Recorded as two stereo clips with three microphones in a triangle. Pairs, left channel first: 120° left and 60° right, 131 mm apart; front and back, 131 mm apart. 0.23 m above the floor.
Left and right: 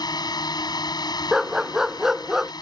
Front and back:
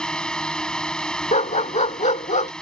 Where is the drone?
80° left.